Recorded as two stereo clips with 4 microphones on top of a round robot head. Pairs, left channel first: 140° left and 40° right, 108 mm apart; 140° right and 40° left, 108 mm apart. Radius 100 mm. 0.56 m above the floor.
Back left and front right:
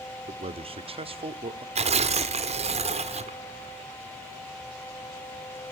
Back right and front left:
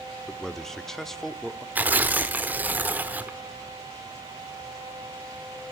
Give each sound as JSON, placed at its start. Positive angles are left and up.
{"t": 0.3, "sound": "a man speaking", "azimuth_deg": -55, "distance_m": 1.3}
{"t": 1.8, "sound": "tearing paper", "azimuth_deg": -35, "distance_m": 1.4}